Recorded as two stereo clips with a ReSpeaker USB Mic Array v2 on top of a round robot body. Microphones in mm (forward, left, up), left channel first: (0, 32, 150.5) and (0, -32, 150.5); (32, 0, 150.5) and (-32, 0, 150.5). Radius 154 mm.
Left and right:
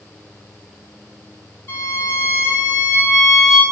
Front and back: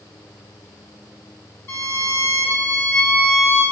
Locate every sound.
1.7 s a violin: 45° left, 2.5 m